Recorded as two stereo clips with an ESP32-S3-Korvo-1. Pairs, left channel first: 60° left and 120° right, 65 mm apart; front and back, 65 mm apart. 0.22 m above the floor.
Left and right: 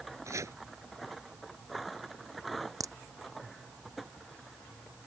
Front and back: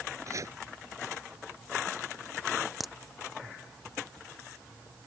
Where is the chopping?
150° right.